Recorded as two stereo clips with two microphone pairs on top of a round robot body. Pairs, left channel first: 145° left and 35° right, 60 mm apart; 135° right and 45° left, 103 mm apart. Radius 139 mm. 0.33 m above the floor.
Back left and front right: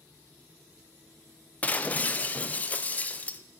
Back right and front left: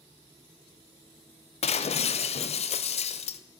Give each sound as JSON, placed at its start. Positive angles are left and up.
{"t": 1.6, "sound": "breaking glass", "azimuth_deg": -155, "distance_m": 0.6}